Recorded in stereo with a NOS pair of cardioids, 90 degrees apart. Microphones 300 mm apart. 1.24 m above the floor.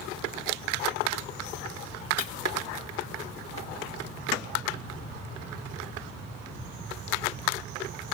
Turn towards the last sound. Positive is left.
turn(degrees=55)